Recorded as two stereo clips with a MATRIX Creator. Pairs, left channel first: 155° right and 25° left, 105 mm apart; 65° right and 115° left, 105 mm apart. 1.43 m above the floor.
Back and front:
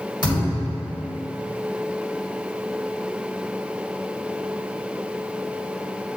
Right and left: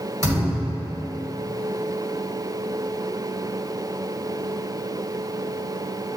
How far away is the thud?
About 2 m.